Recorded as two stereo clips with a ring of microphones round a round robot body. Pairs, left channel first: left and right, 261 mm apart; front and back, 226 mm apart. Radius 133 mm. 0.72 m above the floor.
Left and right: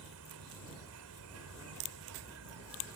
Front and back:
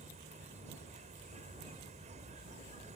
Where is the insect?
115° right.